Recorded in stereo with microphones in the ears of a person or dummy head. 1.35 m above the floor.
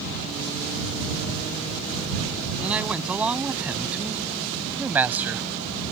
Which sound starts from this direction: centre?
A man speaking, at 2.6 s.